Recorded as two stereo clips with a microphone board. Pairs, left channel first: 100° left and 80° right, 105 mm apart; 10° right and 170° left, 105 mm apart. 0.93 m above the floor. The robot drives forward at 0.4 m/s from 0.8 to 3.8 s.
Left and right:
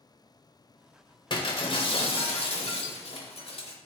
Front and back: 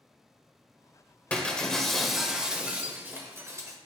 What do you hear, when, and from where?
1.3 s breaking glass: 65° left, 1.2 m; by 3.8 s 115° left, 1.2 m